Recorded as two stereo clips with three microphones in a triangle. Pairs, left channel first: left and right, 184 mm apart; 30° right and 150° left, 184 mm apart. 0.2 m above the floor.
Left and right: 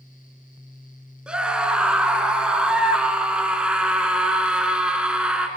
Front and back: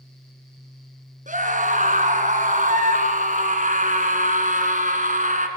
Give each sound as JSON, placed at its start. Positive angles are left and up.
{"t": 1.3, "sound": "a scream", "azimuth_deg": -175, "distance_m": 2.5}